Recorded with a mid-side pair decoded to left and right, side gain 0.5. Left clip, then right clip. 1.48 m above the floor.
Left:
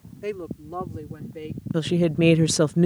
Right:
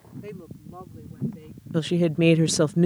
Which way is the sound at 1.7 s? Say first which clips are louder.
Left 1 dB; 5° left.